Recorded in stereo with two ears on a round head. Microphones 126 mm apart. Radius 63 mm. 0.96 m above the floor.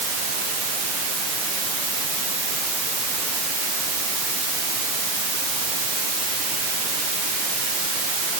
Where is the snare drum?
I don't hear a snare drum.